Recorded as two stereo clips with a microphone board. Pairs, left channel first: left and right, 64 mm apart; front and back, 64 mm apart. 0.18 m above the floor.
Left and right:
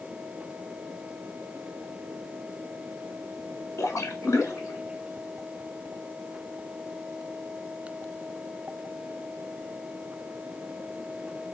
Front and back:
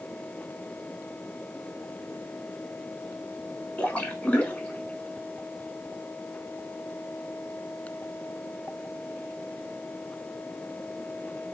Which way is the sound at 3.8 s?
65° left.